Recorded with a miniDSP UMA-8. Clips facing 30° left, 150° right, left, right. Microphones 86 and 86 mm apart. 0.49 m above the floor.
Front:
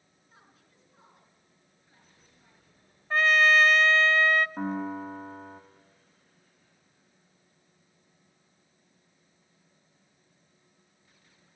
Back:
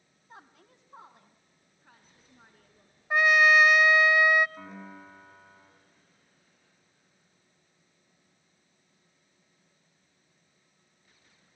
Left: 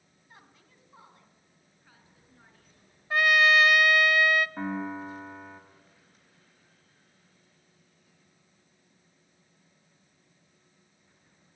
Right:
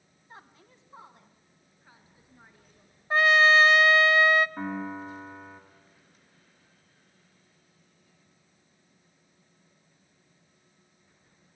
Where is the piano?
10° left, 3.5 m.